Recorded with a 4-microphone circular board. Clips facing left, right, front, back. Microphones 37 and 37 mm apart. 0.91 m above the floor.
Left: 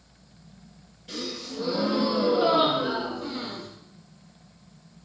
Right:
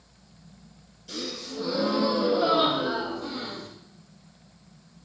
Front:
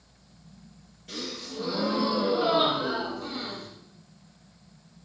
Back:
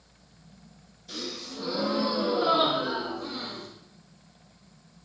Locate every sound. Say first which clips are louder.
1.1 s a gasp: even, front 1 dB; 30° left, 8 m